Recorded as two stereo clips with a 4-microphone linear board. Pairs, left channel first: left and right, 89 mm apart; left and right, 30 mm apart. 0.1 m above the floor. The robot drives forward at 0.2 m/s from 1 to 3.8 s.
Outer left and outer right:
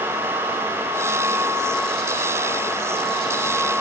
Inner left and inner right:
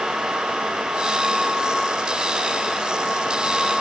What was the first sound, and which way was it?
Only background noise.